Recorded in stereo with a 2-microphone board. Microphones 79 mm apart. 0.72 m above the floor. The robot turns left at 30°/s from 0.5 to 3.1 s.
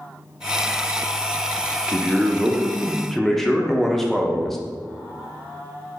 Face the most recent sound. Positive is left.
turn(degrees=170)